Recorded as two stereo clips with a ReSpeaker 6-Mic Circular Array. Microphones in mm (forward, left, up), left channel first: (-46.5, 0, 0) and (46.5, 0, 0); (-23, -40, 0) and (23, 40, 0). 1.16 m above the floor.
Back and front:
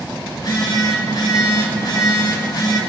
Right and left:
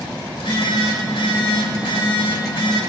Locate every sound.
0.3 s a phone buzzing: 135° right, 3 m